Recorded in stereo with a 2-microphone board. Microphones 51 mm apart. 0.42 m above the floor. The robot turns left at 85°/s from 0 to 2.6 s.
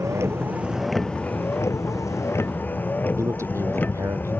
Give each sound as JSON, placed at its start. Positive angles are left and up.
{"t": 0.0, "sound": "a vehicle", "azimuth_deg": -105}
{"t": 3.2, "sound": "a man speaking", "side_deg": -70}